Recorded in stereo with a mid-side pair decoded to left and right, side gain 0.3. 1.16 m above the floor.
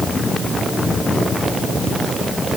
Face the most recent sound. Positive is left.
No sound to turn to.